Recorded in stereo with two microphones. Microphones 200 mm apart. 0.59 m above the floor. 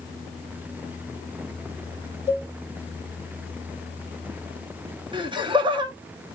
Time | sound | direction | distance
2.3 | a cowbell | 35° right (ahead or behind) | 1.2 m
5.1 | laughter | 25° right (ahead or behind) | 0.6 m